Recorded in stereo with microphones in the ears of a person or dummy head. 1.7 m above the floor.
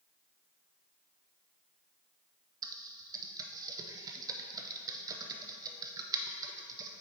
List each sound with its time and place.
2.6 s typing on a keyboard: 20° right (ahead or behind), 0.6 m